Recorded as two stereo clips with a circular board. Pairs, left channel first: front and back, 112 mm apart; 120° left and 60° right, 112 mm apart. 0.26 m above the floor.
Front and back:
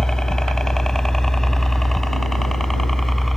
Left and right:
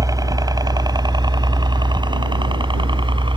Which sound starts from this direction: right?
A helicopter, at 0.0 s.